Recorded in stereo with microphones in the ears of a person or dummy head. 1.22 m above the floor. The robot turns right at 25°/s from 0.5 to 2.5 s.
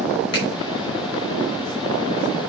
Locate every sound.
0.3 s a finger snap: 40° left (ahead or behind), 4.5 m